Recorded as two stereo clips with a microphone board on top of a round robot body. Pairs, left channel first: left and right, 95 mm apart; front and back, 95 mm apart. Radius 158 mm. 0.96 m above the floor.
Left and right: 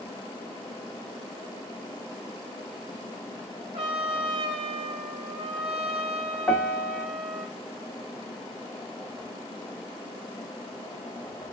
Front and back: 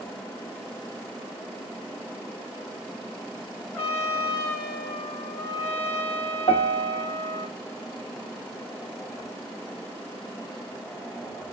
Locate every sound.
3.7 s a trumpet: 75° right, 1.0 m
6.5 s a piano: 5° left, 0.5 m